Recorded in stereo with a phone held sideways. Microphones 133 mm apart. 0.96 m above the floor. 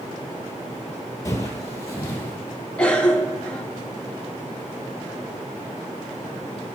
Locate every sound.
1.2 s footsteps: 25° left (ahead or behind), 1.4 m
2.8 s a cough: 10° left (ahead or behind), 1.5 m